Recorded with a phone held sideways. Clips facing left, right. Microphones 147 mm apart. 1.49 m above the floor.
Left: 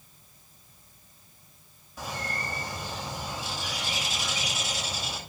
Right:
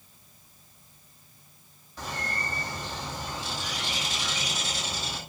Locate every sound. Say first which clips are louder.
2.0 s a bird: even; 10° left (ahead or behind), 7 m